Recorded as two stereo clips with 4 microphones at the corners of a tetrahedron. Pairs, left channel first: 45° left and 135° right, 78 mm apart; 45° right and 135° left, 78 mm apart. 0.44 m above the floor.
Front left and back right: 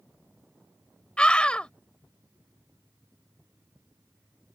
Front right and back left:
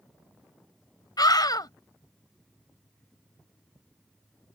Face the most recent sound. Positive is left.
turn(degrees=-30)